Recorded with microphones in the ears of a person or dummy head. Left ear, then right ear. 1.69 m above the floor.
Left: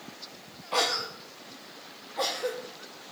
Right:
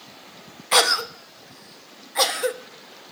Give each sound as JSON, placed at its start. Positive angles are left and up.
{"t": 0.7, "sound": "a cough", "side_deg": -65, "distance_m": 1.0}